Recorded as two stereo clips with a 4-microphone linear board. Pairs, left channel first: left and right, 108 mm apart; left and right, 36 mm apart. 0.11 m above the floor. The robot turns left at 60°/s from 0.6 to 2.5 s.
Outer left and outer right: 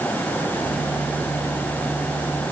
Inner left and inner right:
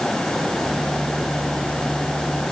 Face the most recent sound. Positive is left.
No sound to turn to.